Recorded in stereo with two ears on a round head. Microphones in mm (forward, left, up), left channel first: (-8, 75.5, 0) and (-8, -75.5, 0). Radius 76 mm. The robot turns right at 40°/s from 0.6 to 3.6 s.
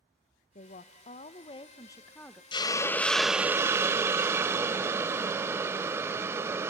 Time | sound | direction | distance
0.6 | a woman speaking | 100° left | 0.6 m
2.5 | a hiss | 150° left | 0.5 m